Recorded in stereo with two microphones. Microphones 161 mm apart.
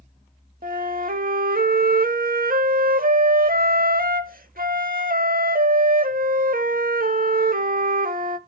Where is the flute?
60° right (ahead or behind), 0.9 m.